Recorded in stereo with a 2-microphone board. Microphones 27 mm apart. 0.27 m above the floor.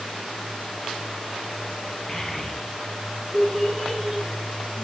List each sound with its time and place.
2.1 s a child speaking: 20° left (ahead or behind), 3 m; by 4.8 s 15° right (ahead or behind), 2.5 m